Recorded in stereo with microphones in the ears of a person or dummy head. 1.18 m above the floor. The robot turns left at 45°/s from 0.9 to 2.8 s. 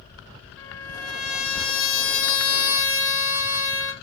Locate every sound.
0.6 s a trumpet: 110° left, 4 m; by 3.9 s 25° left, 4 m